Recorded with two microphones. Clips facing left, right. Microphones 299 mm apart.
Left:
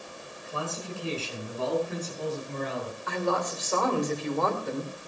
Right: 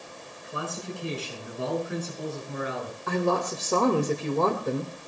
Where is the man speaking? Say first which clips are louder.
Even; 20° right (ahead or behind), 8 m; by 3.0 s 5° right (ahead or behind), 7.5 m.